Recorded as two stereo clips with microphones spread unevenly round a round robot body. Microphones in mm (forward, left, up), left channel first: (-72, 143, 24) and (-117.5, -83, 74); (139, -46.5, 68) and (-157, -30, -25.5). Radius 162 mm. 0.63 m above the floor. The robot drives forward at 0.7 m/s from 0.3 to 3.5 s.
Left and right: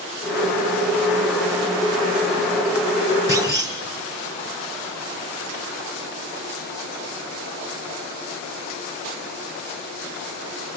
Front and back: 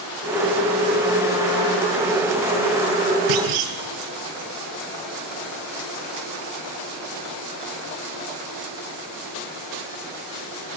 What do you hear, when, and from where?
3.3 s a clunk: straight behind, 3.5 m